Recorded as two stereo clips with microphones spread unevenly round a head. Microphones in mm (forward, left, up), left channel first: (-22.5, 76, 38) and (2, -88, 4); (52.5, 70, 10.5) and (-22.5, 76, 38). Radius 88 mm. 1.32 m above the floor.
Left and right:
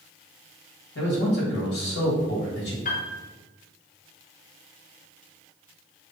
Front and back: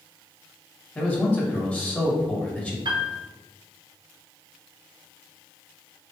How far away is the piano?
About 1.0 m.